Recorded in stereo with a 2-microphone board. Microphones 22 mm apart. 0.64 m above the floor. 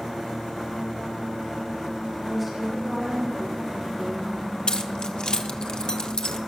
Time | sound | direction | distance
2.2 | a woman speaking | 5° right (ahead or behind) | 3.5 m
4.7 | keys jangling | 50° left (ahead or behind) | 1.1 m